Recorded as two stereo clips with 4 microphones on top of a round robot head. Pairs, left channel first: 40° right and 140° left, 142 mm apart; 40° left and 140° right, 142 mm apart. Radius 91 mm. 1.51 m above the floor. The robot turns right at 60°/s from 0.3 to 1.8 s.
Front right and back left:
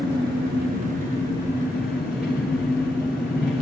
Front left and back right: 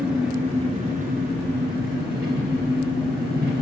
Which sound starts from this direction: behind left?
An engine running, at 0.0 s.